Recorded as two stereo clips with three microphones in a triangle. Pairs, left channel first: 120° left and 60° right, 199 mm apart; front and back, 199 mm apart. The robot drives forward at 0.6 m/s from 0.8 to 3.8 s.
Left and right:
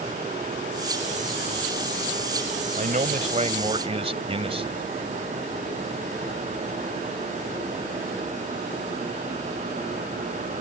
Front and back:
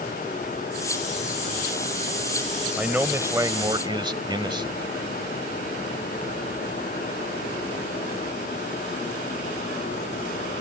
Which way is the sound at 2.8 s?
95° right.